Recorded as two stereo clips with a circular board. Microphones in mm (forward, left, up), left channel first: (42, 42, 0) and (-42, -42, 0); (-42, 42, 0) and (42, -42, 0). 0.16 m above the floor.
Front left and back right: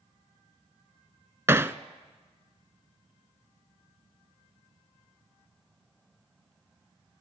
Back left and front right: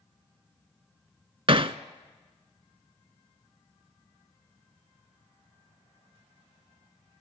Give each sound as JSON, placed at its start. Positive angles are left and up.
{"t": 1.5, "sound": "hammering", "azimuth_deg": -70, "distance_m": 0.6}